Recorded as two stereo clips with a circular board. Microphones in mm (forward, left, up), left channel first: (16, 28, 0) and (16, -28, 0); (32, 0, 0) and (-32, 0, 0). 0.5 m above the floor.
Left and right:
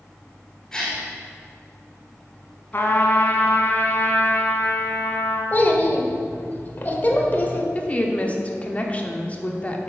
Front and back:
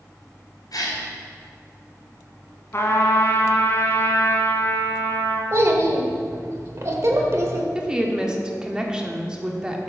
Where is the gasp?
10° left, 1.8 m.